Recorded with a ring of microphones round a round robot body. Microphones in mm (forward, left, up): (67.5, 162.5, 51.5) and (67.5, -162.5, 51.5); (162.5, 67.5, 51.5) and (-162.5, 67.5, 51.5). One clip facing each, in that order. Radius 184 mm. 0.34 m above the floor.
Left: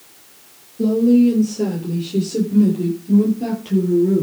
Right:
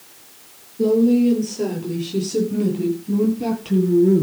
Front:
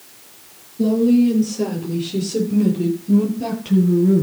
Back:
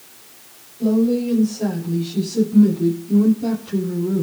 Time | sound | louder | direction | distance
0.8 | a woman speaking | left 2 dB, front 3 dB | 10° right | 9.5 m